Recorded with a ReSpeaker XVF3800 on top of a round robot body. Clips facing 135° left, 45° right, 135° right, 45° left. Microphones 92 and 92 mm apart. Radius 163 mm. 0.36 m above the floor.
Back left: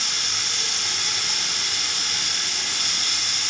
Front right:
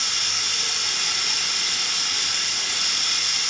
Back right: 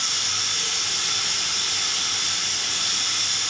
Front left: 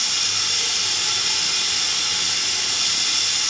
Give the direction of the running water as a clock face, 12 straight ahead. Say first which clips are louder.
Even, front left 1 dB; 10 o'clock.